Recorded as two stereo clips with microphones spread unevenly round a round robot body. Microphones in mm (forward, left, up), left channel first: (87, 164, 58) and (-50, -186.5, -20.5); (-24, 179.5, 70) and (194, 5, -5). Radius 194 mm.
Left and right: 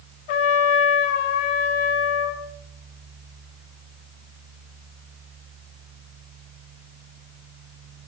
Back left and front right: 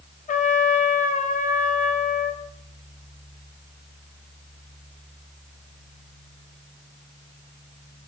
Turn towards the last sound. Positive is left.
turn(degrees=80)